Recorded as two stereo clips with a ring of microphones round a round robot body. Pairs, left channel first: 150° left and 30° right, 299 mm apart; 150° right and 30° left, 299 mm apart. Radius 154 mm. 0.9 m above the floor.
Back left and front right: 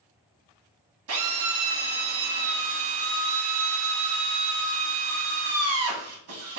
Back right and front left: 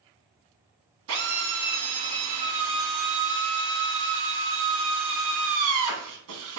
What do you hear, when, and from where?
1.1 s a drill: straight ahead, 1.1 m